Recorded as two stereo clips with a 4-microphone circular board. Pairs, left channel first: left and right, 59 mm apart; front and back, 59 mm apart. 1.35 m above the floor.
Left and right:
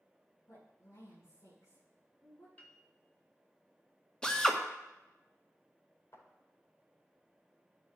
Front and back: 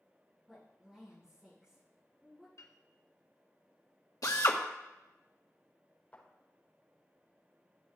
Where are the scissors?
I don't hear scissors.